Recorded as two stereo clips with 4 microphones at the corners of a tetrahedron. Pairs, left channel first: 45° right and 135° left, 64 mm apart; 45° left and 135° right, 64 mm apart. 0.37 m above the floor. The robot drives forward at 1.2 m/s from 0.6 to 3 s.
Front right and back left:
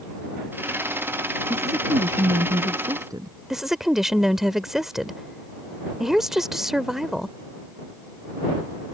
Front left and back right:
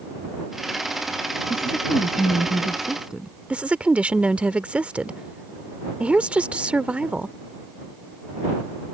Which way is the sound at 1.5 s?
125° left.